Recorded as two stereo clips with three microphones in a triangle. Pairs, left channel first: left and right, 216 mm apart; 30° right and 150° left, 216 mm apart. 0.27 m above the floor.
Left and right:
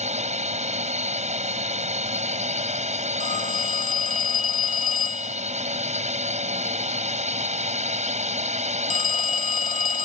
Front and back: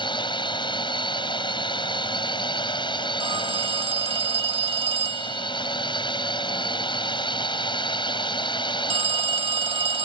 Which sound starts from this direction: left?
A phone ringing, at 3.2 s.